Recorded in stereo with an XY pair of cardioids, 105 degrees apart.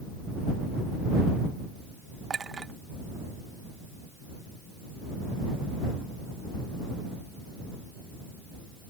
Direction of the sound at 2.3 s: 40° right.